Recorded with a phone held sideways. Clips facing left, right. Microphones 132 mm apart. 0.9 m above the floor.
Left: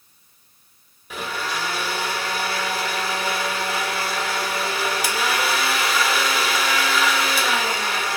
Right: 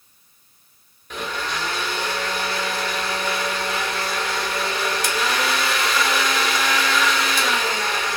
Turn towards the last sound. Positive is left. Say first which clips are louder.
# even
turn(degrees=5)  # may be behind; listen again after turning